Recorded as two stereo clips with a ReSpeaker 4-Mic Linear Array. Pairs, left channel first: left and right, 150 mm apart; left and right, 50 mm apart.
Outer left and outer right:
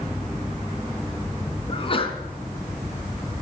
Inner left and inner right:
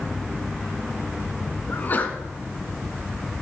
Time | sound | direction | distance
1.7 | a sneeze | 35° left (ahead or behind) | 2.5 m